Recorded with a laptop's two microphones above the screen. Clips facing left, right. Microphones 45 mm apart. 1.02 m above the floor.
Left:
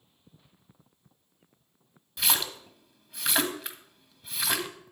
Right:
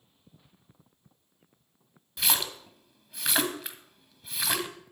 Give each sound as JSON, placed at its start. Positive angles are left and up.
{"t": 2.2, "sound": "a splash", "side_deg": 0, "distance_m": 1.4}